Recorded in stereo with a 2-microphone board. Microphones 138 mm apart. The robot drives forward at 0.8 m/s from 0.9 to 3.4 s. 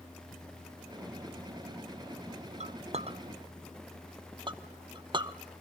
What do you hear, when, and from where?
2.6 s a clink: 55° right (ahead or behind), 0.6 m; by 5.4 s 35° right (ahead or behind), 0.8 m